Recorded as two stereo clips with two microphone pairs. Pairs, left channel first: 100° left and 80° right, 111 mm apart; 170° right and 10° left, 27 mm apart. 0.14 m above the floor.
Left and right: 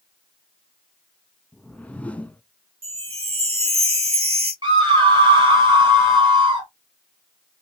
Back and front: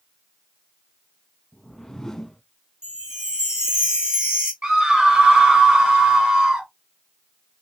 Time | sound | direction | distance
1.5 | a whoosh | 155° left | 0.6 m
2.8 | a chime | 50° right | 2.5 m
4.6 | a scream | 40° right | 2.5 m